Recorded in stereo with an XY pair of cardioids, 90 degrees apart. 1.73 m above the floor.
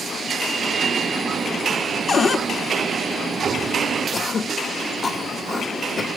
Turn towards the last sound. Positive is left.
turn(degrees=45)